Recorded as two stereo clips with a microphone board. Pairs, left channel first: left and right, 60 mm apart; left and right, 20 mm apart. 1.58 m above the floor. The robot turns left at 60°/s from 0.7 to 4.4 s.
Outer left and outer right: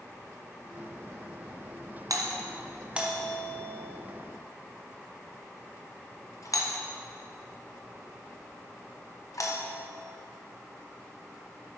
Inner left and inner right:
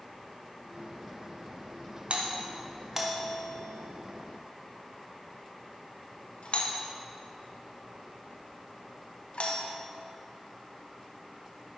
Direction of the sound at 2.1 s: 70° right (ahead or behind).